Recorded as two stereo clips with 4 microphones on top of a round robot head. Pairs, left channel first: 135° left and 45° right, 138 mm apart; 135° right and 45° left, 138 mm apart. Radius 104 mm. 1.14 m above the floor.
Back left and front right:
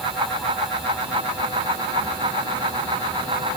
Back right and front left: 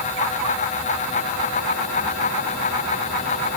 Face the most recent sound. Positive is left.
No sound to turn to.